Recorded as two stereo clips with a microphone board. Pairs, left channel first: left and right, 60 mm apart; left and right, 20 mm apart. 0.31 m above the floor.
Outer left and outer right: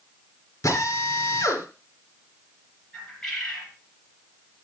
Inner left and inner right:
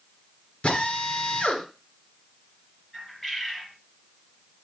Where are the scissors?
I don't hear scissors.